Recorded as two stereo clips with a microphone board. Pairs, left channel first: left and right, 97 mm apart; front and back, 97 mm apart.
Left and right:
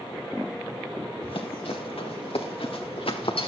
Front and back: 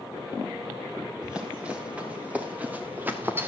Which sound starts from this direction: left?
Running footsteps, at 1.2 s.